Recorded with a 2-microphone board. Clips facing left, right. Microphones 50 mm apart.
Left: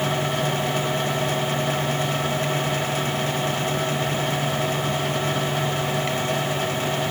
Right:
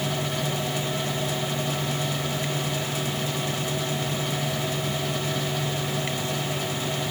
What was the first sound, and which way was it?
Only background noise.